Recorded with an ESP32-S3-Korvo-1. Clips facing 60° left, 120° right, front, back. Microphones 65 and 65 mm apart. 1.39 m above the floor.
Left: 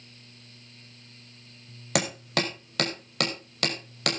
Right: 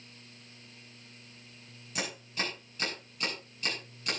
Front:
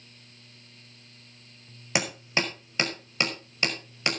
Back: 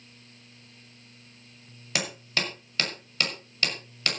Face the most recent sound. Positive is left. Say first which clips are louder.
# left 9 dB, front 3 dB
turn(degrees=70)